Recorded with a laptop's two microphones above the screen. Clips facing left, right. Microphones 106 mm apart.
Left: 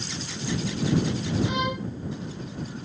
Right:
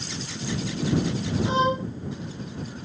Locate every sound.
1.4 s a violin: 30° right (ahead or behind)